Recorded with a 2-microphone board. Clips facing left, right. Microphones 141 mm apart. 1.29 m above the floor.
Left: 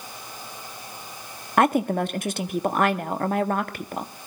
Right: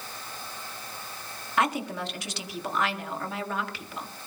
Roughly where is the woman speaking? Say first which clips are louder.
Left 8 dB; left.